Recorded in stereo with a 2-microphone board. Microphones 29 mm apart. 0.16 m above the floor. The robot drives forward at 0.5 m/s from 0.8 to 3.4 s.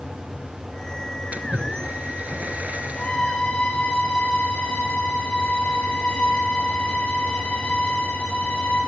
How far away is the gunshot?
No gunshot in this recording.